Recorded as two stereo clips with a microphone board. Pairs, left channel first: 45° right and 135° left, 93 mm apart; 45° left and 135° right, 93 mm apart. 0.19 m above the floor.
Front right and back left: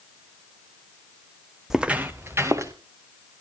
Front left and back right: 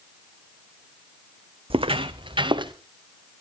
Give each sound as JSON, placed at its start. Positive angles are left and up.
{"t": 1.7, "sound": "footsteps", "azimuth_deg": -140, "distance_m": 0.8}